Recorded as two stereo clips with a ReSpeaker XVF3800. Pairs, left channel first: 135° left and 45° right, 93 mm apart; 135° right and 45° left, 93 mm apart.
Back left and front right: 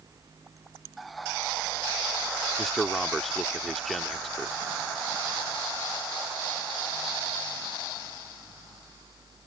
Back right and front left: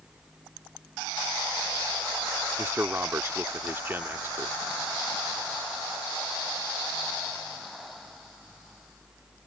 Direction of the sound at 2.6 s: 50° left.